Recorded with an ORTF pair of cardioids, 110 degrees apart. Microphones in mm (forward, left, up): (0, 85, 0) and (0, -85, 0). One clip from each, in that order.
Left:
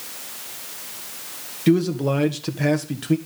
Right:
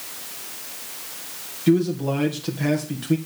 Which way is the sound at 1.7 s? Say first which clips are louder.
Left 1 dB; 35° left.